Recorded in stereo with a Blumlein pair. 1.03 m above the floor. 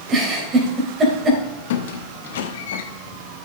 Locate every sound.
0.1 s a giggle: 25° right, 3 m
1.7 s a squeak: 55° left, 1.0 m